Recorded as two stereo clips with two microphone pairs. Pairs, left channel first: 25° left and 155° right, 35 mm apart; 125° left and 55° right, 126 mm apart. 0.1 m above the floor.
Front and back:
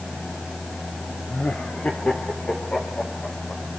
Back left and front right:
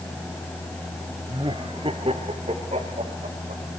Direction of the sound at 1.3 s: 10° right.